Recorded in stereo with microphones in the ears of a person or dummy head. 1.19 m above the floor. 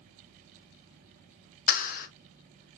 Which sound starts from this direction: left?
A clap, at 1.7 s.